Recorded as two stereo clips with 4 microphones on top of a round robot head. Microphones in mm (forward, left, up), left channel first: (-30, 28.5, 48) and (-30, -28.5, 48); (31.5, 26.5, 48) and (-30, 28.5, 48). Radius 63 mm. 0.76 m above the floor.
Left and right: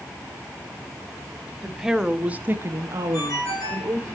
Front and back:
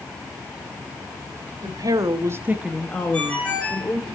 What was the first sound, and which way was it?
A woman speaking, straight behind.